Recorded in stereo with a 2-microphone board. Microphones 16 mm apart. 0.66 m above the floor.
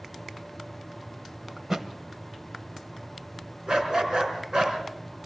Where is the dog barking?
50° right (ahead or behind), 3.5 m.